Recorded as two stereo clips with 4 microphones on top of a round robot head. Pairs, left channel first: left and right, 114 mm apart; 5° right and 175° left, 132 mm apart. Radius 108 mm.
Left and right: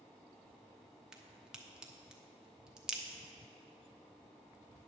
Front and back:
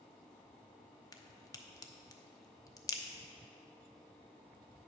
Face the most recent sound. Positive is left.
turn(degrees=-15)